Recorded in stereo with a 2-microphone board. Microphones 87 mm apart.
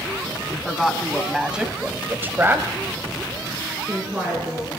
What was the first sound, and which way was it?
A woman speaking, 5° left (ahead or behind).